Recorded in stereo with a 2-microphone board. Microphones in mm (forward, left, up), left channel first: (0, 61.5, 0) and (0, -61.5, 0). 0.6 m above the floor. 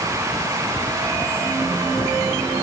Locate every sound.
Only background noise.